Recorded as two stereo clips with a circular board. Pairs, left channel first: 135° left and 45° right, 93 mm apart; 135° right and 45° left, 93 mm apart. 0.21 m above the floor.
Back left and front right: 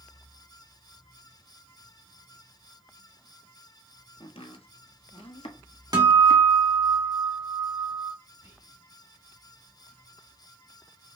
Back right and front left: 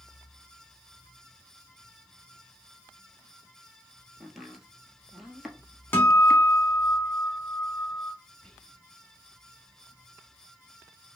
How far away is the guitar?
About 1.4 m.